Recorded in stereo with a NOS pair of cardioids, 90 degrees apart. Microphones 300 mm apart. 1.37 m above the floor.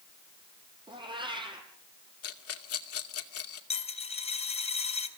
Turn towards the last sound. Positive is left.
turn(degrees=20)